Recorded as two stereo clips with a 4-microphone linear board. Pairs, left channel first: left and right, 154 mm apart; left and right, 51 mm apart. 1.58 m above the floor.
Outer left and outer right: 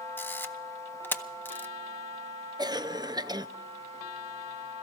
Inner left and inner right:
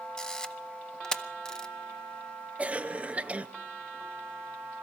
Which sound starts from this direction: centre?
A camera shutter, at 0.2 s.